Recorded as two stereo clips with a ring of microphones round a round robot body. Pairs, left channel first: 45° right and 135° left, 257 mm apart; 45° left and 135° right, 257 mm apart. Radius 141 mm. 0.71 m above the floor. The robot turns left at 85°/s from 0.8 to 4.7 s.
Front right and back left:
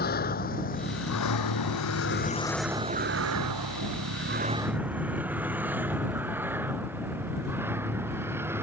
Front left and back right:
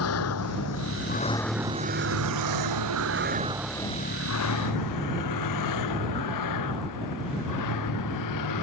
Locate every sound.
0.0 s a vehicle: 10° left; by 8.6 s 55° left